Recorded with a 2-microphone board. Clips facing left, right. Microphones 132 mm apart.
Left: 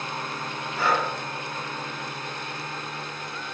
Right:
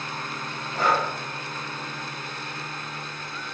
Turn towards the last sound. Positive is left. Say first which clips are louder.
# right 1 dB
turn(degrees=-50)  # may be behind; listen again after turning